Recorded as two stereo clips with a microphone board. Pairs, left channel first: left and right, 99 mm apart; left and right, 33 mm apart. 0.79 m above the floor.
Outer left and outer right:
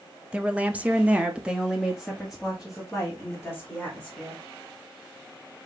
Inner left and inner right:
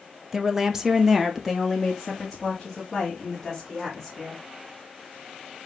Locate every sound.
0.3 s a woman speaking: 10° right (ahead or behind), 0.9 m; by 4.4 s centre (ahead or behind), 3.5 m